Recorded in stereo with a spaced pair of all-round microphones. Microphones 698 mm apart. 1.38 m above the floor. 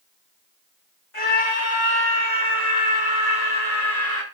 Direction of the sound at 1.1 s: 45° left (ahead or behind).